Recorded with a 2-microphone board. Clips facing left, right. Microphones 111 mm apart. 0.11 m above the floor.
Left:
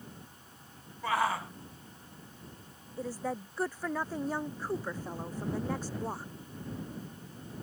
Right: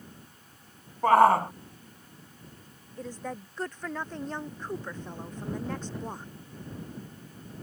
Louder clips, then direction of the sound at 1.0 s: Right 12 dB; 50° right (ahead or behind).